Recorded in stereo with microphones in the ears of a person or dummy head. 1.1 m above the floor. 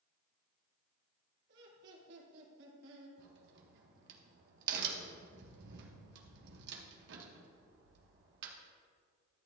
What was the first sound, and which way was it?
Laughter, 65° right (ahead or behind).